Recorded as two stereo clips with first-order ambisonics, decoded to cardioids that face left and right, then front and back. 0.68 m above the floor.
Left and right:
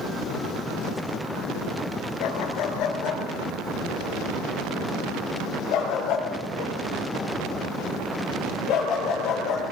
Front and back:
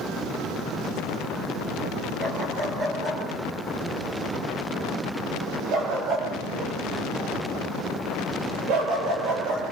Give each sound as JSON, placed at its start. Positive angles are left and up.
{"t": 2.2, "sound": "a dog barking", "azimuth_deg": 110, "distance_m": 5.0}